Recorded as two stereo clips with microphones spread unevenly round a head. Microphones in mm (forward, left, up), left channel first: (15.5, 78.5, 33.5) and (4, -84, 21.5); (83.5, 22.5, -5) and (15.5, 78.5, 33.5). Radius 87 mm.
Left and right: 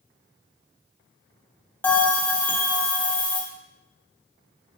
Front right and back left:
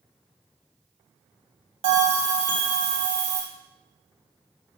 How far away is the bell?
About 1.7 m.